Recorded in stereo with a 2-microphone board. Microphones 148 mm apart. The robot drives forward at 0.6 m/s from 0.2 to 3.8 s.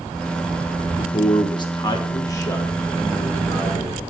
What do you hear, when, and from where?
1.0 s a man speaking: 40° left (ahead or behind), 1.0 m; by 4.0 s 15° left (ahead or behind), 2.5 m